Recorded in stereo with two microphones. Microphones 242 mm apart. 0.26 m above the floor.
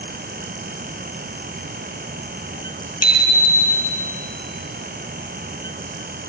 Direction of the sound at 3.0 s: 70° left (ahead or behind).